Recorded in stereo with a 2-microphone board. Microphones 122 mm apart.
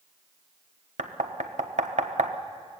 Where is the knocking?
75° right (ahead or behind), 1.2 m.